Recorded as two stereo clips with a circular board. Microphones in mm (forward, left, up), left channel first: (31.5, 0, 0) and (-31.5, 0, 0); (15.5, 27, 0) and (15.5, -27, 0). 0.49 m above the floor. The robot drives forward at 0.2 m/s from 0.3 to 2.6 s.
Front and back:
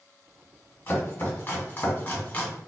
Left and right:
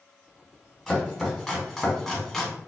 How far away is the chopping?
About 1.5 m.